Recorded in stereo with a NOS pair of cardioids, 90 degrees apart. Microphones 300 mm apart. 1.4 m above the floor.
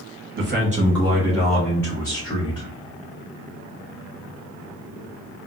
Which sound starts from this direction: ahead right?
A man speaking, at 0.4 s.